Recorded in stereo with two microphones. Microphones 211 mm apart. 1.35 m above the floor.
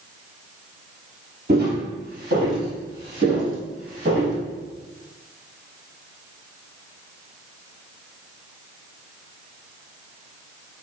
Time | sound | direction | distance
1.5 | footsteps | 50° right (ahead or behind) | 2.0 m